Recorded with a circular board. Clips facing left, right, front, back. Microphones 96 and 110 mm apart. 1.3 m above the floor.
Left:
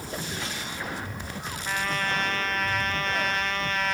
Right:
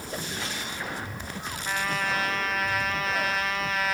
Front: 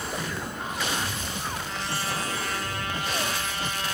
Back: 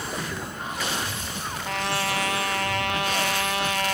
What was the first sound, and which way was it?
A trumpet, 175° right.